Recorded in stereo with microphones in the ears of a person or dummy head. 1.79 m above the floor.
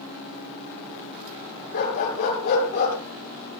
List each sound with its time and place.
1.7 s a dog barking: 45° left (ahead or behind), 7 m; by 3.0 s 40° left (ahead or behind), 7.5 m